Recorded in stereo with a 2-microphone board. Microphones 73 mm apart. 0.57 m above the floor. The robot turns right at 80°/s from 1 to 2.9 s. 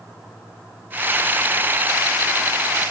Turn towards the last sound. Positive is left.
No sound to turn to.